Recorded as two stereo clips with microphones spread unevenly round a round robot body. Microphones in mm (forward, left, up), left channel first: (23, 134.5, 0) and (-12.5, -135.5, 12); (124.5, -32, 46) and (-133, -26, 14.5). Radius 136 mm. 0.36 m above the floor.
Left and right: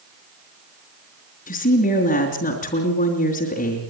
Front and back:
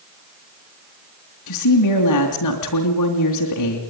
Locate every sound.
1.5 s a woman speaking: 20° left, 3 m